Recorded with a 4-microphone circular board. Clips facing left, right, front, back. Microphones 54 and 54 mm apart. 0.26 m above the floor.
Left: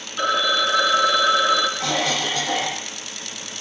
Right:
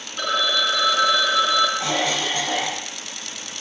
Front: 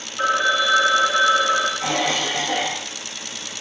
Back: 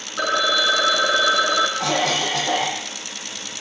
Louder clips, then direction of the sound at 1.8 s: Even, back 1 dB; 160° right.